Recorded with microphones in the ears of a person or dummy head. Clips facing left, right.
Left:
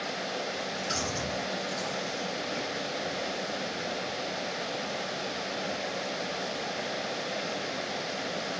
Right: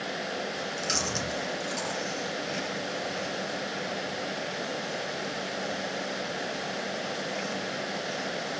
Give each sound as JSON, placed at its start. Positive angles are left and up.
{"t": 0.5, "sound": "chewing", "side_deg": -60, "distance_m": 1.9}